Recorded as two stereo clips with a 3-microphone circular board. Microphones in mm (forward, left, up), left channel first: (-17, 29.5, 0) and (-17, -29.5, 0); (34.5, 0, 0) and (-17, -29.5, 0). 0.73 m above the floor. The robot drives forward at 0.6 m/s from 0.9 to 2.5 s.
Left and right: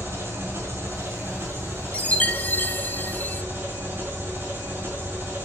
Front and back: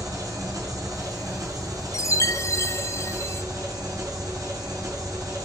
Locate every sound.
0.0 s an engine running: 145° right, 6 m; by 5.5 s 150° right, 7 m
1.9 s a chime: 25° left, 0.9 m; by 3.4 s 45° left, 0.6 m